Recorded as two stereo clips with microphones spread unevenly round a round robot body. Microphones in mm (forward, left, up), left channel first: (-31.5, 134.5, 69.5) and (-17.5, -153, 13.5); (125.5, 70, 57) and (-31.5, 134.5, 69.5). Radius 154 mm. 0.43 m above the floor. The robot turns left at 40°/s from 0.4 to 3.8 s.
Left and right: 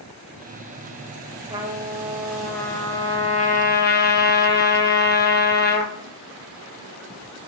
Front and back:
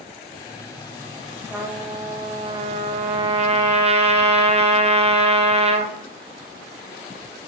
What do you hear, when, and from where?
1.5 s a trumpet: 125° right, 0.7 m; by 5.9 s 140° left, 0.7 m